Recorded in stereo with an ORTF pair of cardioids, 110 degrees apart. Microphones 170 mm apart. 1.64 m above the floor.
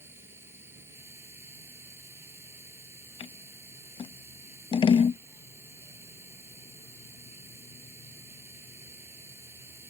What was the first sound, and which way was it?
A machine running, 15° right.